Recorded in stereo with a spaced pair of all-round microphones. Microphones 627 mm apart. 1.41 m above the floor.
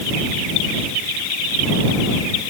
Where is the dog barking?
I don't hear a dog barking.